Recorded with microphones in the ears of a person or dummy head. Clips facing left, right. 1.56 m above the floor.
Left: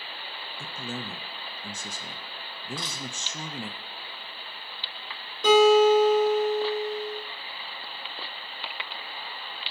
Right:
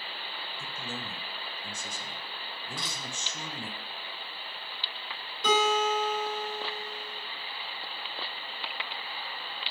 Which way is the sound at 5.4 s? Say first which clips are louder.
Left 10 dB; 70° left (ahead or behind).